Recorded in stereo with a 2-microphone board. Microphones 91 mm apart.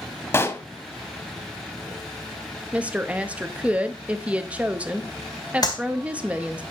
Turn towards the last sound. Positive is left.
turn(degrees=45)  # may be behind; listen again after turning